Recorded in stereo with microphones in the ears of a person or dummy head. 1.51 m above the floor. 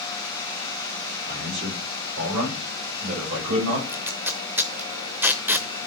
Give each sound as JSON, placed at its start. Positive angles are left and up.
{"t": 1.3, "sound": "a man speaking", "side_deg": -65, "distance_m": 7.0}
{"t": 3.9, "sound": "tape being pulled", "side_deg": -10, "distance_m": 0.9}